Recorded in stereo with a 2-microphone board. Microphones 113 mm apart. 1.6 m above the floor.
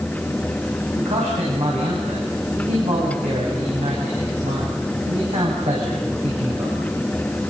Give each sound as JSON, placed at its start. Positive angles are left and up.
{"t": 0.9, "sound": "a man speaking", "side_deg": -70, "distance_m": 8.5}